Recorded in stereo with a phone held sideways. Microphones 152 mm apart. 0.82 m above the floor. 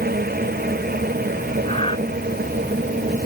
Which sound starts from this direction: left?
Breathing, at 1.6 s.